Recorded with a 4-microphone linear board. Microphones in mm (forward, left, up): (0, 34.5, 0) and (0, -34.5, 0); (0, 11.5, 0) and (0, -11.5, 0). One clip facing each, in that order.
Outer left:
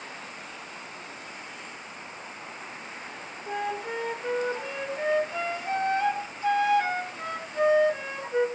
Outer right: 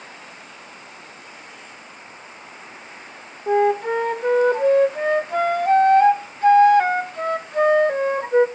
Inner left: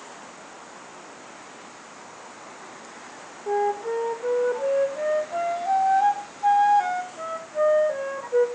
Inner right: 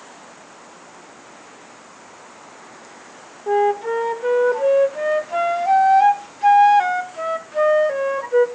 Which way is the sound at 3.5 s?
55° right (ahead or behind).